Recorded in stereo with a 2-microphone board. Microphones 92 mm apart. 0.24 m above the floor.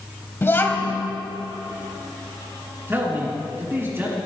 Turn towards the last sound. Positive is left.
turn(degrees=-25)  # may be behind; listen again after turning